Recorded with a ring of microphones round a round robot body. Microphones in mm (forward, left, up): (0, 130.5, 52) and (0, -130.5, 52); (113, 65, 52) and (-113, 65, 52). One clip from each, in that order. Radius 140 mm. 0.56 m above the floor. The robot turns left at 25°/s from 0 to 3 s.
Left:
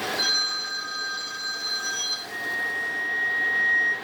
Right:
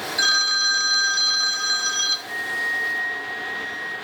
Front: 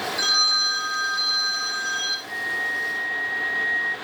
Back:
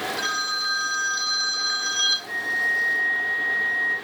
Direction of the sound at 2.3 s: 150° right.